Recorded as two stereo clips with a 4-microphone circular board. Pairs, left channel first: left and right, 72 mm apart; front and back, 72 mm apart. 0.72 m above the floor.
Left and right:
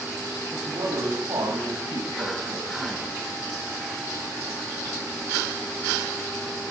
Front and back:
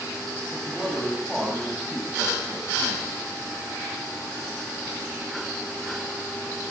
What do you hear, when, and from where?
0.5 s a man speaking: 90° right, 4.5 m; by 3.2 s 110° right, 5.5 m